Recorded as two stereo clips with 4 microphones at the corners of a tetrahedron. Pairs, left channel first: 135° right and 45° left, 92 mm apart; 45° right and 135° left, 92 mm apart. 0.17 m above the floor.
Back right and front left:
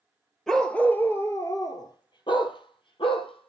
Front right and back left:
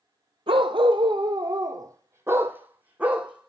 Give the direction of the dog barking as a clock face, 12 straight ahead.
7 o'clock.